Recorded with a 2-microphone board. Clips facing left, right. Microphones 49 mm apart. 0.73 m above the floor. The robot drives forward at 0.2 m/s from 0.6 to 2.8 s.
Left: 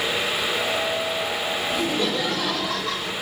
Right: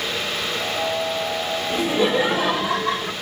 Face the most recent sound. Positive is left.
turn(degrees=-25)  # may be behind; listen again after turning